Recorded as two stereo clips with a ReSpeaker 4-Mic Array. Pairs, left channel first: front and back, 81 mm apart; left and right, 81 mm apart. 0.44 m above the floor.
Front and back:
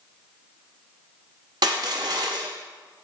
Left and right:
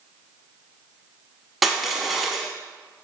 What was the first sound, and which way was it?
Crushing, straight behind.